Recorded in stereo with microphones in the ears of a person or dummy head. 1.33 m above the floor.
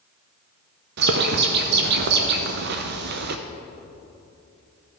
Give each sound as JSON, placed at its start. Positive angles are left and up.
{"t": 1.0, "sound": "a bird", "side_deg": -65, "distance_m": 0.7}